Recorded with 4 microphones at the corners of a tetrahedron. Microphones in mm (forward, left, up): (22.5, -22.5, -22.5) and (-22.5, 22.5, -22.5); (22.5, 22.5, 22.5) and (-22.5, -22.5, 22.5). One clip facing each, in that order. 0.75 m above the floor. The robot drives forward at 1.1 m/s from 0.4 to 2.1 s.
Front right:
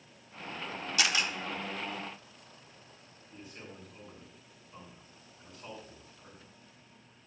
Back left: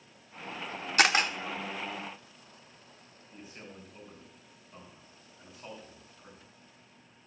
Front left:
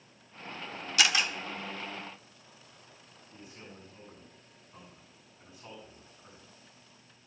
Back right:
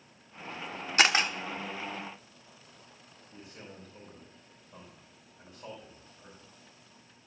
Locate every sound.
1.0 s a camera shutter: 175° left, 0.8 m
3.3 s a man speaking: 150° right, 4.5 m